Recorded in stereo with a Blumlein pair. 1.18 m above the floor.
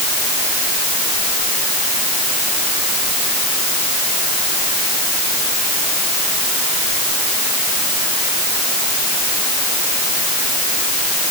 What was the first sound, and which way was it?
Only background noise.